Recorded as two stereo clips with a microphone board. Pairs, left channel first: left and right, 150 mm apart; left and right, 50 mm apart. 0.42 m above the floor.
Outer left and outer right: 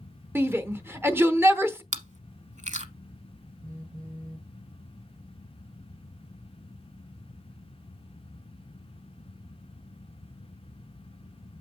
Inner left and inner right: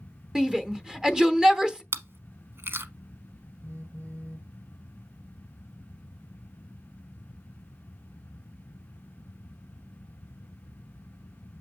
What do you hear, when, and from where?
0.3 s a shout: 15° right (ahead or behind), 0.9 m
1.9 s chewing: 55° right (ahead or behind), 0.8 m
3.6 s a phone buzzing: 65° right (ahead or behind), 2.5 m